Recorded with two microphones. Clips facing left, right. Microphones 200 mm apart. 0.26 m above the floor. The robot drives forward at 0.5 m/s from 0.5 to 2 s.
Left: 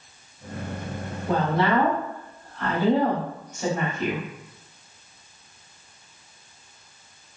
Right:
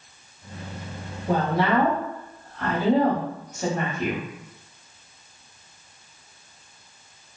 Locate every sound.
1.3 s a woman speaking: 10° right (ahead or behind), 1.0 m; by 4.2 s 5° right (ahead or behind), 1.2 m